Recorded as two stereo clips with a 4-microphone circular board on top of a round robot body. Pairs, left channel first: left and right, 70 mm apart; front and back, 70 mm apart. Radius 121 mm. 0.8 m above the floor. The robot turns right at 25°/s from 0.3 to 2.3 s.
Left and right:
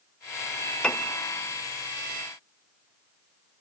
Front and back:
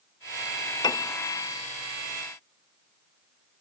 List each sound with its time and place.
0.8 s a piano: 15° left, 0.6 m; by 1.1 s 20° left, 0.6 m